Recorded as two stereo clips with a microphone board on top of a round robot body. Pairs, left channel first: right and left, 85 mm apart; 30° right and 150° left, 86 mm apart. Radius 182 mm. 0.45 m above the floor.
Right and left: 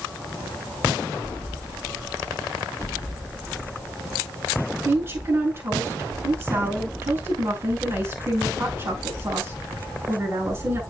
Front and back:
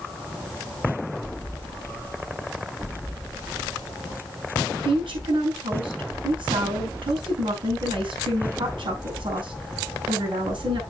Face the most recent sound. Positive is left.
turn(degrees=145)